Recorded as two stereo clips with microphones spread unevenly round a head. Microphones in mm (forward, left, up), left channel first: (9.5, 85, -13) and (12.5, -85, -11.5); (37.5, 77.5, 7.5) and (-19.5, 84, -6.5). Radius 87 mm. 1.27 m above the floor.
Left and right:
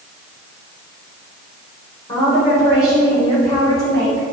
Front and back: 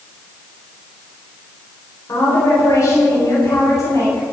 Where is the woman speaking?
25° left, 4.5 m; by 4.2 s 20° left, 7.5 m.